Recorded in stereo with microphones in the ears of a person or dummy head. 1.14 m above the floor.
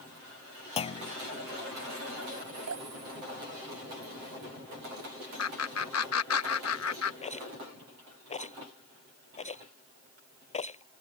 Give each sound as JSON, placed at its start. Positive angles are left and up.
{"t": 0.8, "sound": "a clunk", "side_deg": 30}
{"t": 2.7, "sound": "dripping", "side_deg": -75}
{"t": 5.4, "sound": "laughter", "side_deg": 75}
{"t": 7.2, "sound": "a rattle", "side_deg": 30}